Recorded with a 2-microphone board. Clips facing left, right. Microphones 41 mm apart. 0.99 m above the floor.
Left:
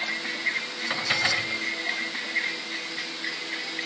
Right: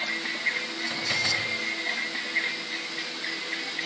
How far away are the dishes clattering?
About 3 m.